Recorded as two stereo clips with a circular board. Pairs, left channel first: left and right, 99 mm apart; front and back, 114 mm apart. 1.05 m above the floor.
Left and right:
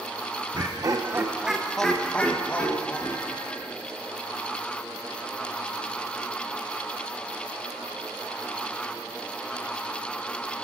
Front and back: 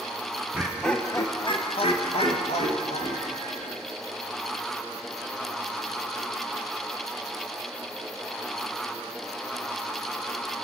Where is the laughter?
110° right, 0.9 m; by 3.8 s 25° left, 3 m.